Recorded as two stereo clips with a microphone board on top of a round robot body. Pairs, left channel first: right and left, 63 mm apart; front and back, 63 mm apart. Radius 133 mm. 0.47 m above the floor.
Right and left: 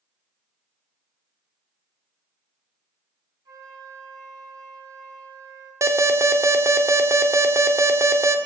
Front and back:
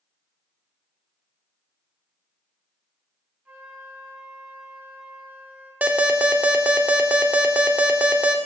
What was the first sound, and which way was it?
A flute, 110° left.